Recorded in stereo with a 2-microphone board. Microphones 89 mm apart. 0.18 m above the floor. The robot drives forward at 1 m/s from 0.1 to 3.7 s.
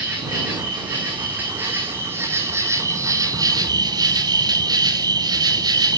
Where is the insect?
15° right (ahead or behind), 5 m; by 6.0 s 45° right (ahead or behind), 1.7 m.